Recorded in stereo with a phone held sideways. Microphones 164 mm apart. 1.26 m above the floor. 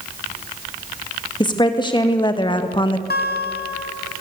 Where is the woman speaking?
25° left (ahead or behind), 2 m; by 3.0 s 30° left (ahead or behind), 1.1 m.